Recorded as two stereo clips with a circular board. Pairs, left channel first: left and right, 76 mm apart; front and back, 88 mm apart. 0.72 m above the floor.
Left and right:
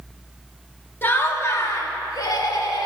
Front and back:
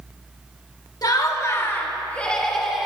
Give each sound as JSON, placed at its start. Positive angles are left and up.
{"t": 1.0, "sound": "laughter", "azimuth_deg": 30, "distance_m": 1.4}